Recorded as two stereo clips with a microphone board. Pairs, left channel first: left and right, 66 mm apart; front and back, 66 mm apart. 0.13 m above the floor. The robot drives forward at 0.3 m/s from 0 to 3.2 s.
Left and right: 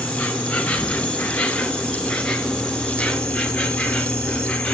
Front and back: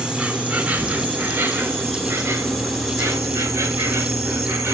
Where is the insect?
130° left, 1.2 m; by 4.8 s 160° left, 1.7 m.